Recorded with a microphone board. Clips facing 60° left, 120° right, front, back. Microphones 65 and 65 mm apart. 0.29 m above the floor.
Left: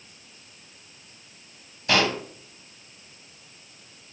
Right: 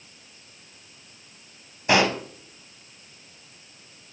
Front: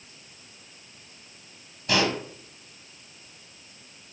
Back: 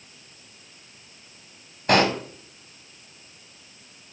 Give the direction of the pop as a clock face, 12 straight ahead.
6 o'clock.